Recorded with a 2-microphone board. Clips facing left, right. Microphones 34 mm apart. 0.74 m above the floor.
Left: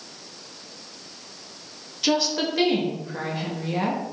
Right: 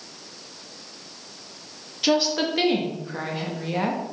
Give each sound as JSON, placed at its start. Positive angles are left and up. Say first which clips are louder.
{"t": 2.0, "sound": "a woman speaking", "louder": "right 1 dB", "side_deg": -15, "distance_m": 0.8}